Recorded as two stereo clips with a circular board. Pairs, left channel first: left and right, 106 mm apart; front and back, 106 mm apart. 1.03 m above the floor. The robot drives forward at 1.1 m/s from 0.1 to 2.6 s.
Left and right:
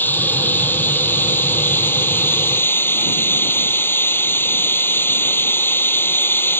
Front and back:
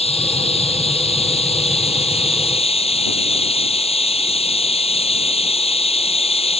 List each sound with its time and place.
0.0 s running water: 20° left